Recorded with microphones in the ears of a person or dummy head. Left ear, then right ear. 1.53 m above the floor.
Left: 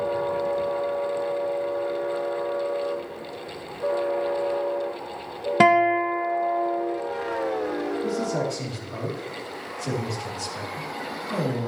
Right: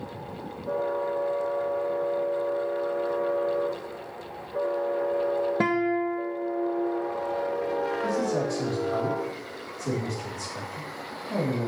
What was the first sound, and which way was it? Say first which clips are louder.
A guitar: left 8 dB; 45° left (ahead or behind).